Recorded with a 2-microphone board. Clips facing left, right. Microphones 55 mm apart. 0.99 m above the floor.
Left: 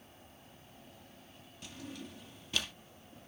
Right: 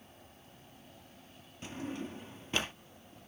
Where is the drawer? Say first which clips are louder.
Right 7 dB; 35° right (ahead or behind).